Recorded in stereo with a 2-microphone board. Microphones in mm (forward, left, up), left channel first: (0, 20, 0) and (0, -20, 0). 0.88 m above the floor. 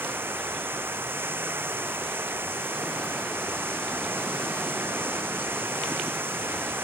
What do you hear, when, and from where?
0.0 s running water: 65° right (ahead or behind)